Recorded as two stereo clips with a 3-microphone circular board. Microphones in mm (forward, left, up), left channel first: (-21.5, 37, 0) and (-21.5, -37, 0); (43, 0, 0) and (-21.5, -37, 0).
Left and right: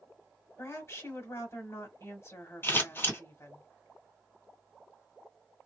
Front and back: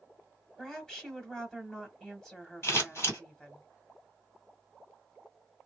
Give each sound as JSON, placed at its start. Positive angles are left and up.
{"t": 0.6, "sound": "a woman speaking", "azimuth_deg": 105, "distance_m": 1.4}
{"t": 2.6, "sound": "scissors", "azimuth_deg": 50, "distance_m": 2.0}